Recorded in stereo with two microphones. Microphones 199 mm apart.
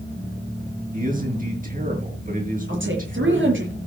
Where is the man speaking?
45° right (ahead or behind), 5.5 m.